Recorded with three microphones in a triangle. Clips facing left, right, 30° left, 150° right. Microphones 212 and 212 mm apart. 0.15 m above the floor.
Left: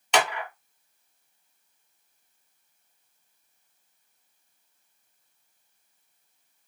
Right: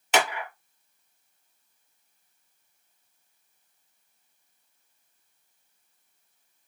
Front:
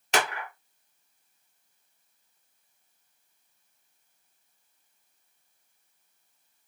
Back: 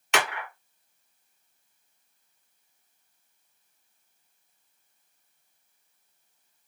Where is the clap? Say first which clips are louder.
Even, front 1 dB; 5° right, 2.0 m.